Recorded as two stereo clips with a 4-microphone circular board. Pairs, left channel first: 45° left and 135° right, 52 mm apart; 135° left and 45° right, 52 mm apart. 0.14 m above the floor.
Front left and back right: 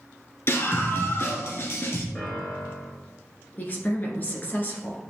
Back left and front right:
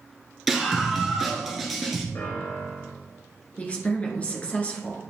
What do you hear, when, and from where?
0.5 s a scream: 40° left, 2 m
2.1 s a piano: 115° left, 2.5 m
3.6 s a woman speaking: 85° left, 2.0 m